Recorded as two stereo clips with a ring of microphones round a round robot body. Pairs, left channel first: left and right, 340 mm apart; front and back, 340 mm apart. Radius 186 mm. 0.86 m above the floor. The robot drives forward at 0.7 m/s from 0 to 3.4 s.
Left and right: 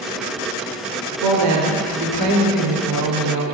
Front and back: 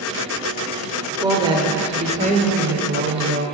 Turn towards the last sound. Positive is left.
turn(degrees=-125)